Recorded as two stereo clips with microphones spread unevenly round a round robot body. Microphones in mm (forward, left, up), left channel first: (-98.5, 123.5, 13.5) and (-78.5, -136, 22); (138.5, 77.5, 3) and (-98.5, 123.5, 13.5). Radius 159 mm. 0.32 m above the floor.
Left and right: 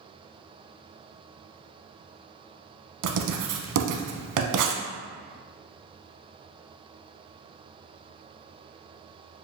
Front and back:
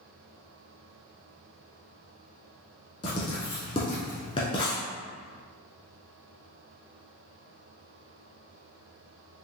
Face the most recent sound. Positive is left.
turn(degrees=-85)